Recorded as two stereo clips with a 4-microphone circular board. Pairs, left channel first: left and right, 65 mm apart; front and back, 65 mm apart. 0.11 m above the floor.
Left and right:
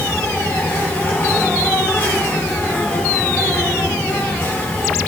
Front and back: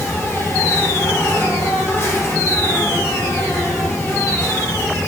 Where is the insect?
40° left, 4 m.